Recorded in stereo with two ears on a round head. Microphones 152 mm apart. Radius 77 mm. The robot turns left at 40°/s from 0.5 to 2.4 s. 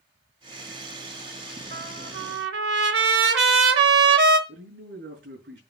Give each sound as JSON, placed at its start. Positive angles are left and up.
{"t": 1.7, "sound": "a trumpet", "side_deg": -55, "distance_m": 0.9}
{"t": 4.5, "sound": "a man speaking", "side_deg": -70, "distance_m": 6.0}